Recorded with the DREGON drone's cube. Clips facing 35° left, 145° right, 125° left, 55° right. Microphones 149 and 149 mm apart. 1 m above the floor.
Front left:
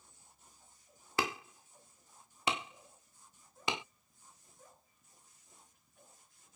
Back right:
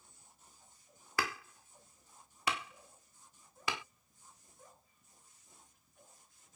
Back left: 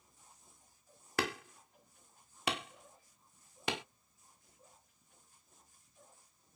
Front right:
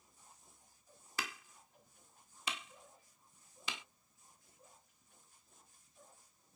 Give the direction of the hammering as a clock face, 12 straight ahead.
9 o'clock.